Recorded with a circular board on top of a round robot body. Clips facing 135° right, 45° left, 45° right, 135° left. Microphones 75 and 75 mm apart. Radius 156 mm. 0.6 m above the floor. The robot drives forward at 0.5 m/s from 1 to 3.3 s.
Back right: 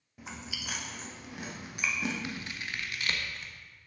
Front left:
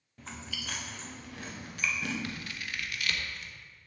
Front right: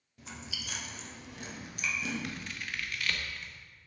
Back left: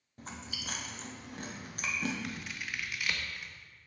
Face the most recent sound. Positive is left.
turn(degrees=-160)